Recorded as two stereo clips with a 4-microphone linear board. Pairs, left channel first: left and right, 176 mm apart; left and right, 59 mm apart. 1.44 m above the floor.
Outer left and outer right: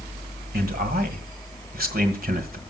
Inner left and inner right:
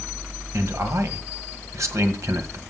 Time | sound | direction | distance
0.5 | a man speaking | 60° right (ahead or behind) | 1.7 m